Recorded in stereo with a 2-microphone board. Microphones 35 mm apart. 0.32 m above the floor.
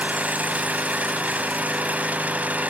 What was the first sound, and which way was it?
An engine running, 55° right (ahead or behind).